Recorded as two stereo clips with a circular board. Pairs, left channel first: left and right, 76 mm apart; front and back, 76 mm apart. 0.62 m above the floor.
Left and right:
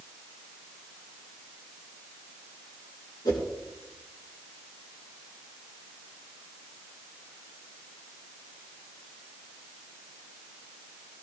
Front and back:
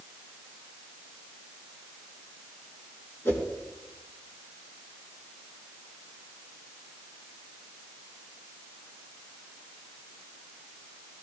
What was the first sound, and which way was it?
A whoosh, 60° left.